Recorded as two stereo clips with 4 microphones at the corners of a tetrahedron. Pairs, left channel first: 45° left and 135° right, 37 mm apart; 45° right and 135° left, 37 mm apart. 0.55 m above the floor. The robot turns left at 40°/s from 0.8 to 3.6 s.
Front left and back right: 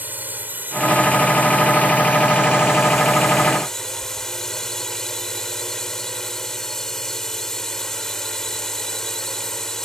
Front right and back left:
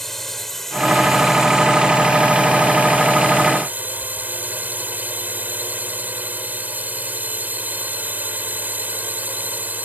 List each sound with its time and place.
0.0 s a drone: 125° right; by 9.8 s 120° left